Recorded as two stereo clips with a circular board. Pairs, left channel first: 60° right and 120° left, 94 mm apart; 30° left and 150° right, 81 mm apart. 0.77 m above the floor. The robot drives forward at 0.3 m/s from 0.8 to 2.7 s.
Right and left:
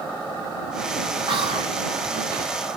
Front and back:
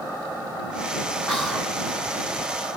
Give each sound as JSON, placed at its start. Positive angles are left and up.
{"t": 1.3, "sound": "whispering", "azimuth_deg": 110, "distance_m": 2.0}